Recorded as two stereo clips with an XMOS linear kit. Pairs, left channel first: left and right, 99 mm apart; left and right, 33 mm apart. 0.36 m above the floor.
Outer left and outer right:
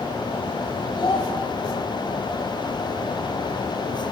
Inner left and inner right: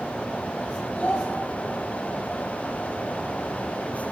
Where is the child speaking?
60° left (ahead or behind), 1.5 m.